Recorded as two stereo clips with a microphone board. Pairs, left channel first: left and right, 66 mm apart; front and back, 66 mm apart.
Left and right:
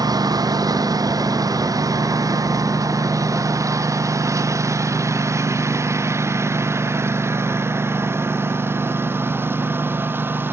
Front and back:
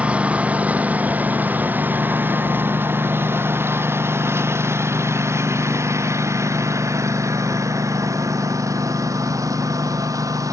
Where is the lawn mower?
110° right; by 10.5 s 150° right.